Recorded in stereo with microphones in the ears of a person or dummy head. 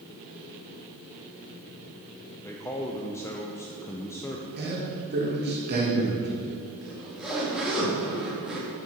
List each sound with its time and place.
2.4 s a man speaking: 10° left (ahead or behind), 0.6 m
4.6 s a man speaking: 55° right (ahead or behind), 1.7 m
6.8 s a zipper: centre (ahead or behind), 2 m